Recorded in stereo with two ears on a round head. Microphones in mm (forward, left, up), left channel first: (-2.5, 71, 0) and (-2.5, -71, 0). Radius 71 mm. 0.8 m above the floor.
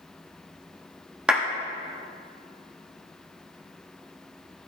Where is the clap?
5° right (ahead or behind), 1.0 m.